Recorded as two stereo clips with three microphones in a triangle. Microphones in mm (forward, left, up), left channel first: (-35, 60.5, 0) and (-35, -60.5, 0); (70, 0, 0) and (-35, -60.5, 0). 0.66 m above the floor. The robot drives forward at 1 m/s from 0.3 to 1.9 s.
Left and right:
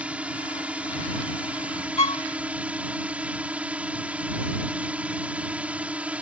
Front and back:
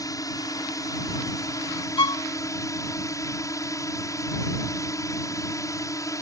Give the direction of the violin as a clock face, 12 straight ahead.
10 o'clock.